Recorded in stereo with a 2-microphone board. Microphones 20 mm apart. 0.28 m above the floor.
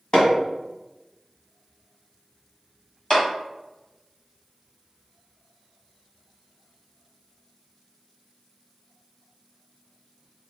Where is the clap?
35° left (ahead or behind), 1.5 m.